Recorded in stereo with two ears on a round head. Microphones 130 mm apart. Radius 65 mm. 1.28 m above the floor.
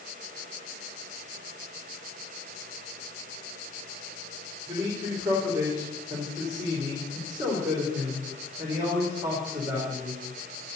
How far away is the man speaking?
About 3.5 m.